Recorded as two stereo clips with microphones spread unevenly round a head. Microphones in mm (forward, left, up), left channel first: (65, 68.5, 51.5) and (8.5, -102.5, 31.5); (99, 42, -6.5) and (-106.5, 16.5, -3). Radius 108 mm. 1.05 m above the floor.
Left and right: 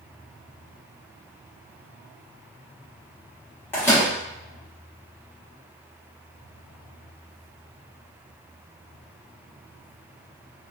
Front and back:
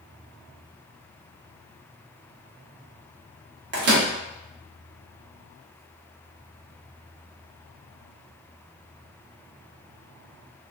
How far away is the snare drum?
I don't hear a snare drum.